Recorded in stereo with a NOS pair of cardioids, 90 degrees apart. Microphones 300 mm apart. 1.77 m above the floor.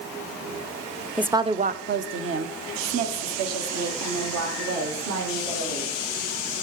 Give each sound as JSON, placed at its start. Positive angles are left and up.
{"t": 1.2, "sound": "a woman speaking", "azimuth_deg": 0, "distance_m": 0.6}